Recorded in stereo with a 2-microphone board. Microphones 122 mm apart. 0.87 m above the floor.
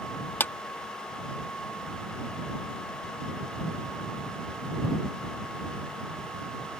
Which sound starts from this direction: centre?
A clap, at 0.4 s.